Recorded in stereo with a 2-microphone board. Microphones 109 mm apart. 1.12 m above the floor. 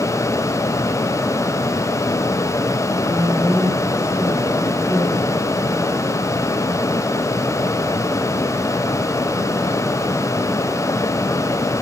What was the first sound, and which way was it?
A woman speaking, 45° left (ahead or behind).